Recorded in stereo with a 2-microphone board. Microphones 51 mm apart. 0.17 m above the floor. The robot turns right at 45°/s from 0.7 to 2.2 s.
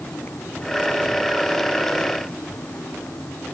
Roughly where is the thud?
I don't hear a thud.